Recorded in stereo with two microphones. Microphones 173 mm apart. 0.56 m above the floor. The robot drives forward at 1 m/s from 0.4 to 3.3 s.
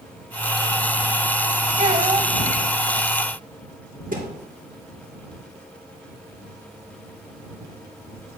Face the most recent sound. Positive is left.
turn(degrees=-50)  # may be behind; listen again after turning